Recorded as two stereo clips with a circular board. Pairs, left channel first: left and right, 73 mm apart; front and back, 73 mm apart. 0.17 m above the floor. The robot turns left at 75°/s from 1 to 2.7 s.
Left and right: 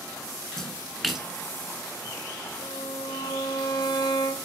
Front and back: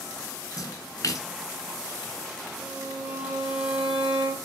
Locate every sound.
0.6 s a splash: 5° left, 1.8 m; by 1.3 s 15° right, 1.8 m
2.6 s a violin: 110° left, 3 m; by 4.4 s 105° left, 3 m